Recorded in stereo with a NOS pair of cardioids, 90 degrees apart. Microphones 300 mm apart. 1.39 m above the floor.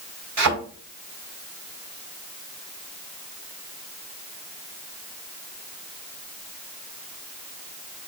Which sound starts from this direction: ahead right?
A thud, at 0.4 s.